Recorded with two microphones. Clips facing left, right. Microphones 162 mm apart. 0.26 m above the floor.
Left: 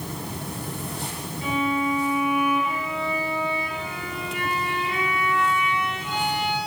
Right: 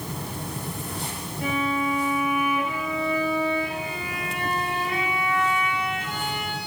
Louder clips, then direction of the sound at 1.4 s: Left 1 dB; 50° right (ahead or behind).